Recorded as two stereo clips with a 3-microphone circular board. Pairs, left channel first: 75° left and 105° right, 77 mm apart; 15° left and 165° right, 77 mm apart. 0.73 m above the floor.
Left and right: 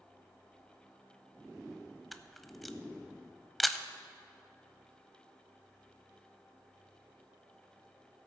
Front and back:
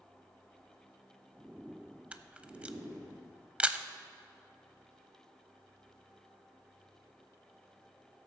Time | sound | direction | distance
2.1 | a camera shutter | 165° left | 0.5 m